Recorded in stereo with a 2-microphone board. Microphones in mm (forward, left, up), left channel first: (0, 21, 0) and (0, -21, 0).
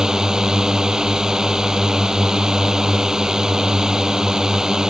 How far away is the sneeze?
No sneeze in this recording.